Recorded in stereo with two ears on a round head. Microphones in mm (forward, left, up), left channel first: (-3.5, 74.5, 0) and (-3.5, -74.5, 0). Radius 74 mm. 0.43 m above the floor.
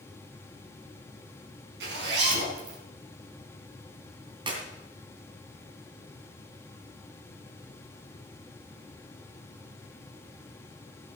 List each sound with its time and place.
1.8 s a zipper: 75° right (ahead or behind), 3.5 m
4.5 s a clap: 30° right (ahead or behind), 2.5 m